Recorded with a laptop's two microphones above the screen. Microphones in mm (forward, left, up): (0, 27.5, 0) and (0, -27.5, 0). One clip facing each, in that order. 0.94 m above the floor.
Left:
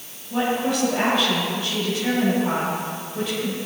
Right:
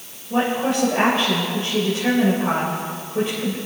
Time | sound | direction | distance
0.3 | a woman speaking | 35° right (ahead or behind) | 4 m